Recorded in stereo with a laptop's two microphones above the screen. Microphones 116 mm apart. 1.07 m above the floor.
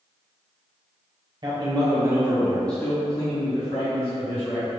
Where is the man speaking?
45° right (ahead or behind), 1.0 m; by 4.7 s 55° left (ahead or behind), 1.7 m.